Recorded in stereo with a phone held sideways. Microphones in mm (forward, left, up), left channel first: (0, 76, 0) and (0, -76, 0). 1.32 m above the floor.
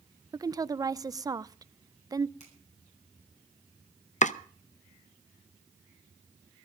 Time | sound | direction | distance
0.3 | a woman speaking | 25° right (ahead or behind) | 0.5 m
2.4 | a finger snap | 55° left (ahead or behind) | 9 m
4.2 | chopping | 55° left (ahead or behind) | 0.7 m